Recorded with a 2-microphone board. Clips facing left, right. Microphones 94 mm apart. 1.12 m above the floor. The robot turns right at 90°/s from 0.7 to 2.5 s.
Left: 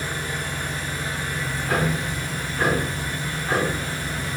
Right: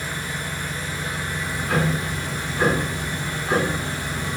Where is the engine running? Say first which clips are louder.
Left 1 dB; 110° left, 0.9 m; by 4.4 s 85° right, 0.9 m.